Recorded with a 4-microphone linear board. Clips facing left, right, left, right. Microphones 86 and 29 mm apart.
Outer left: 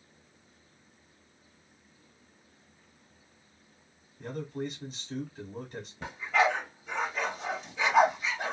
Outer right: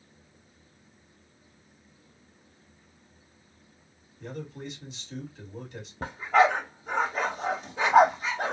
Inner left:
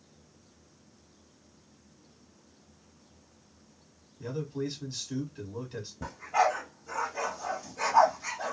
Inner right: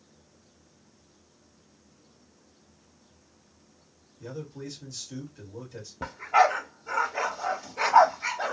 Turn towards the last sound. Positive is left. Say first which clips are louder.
# outer right 5 dB, inner right 5 dB
turn(degrees=-45)  # may be behind; listen again after turning